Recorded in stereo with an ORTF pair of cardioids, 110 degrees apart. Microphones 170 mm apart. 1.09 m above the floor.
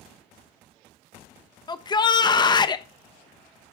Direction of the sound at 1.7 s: 25° left.